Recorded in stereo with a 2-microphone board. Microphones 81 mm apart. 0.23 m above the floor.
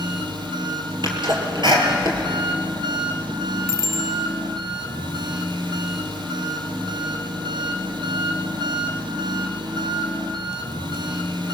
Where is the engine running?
70° right (ahead or behind), 2.0 m.